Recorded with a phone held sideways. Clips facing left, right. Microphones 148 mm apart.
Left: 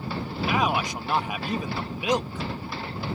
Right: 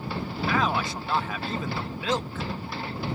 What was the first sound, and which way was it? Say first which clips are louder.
A man speaking: left 1 dB; 15° left (ahead or behind).